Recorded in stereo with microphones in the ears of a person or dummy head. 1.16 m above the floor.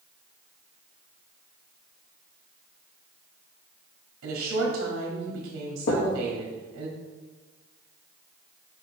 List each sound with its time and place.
4.2 s a woman speaking: 90° right, 2.5 m
5.9 s knocking: 50° left (ahead or behind), 0.9 m